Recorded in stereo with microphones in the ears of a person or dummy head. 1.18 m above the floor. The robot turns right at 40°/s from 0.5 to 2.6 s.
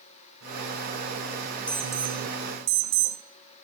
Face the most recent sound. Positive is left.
turn(degrees=-145)